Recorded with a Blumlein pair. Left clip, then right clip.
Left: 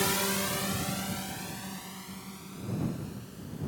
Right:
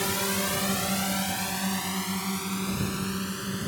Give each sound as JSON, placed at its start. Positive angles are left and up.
{"t": 0.0, "sound": "a drone", "azimuth_deg": 5}